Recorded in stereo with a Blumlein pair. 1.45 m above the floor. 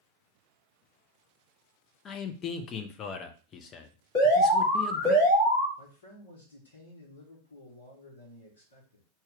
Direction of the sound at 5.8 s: 60° left.